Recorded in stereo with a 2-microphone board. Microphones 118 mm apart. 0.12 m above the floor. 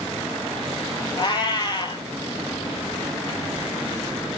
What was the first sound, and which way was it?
A cat meowing, 40° left (ahead or behind).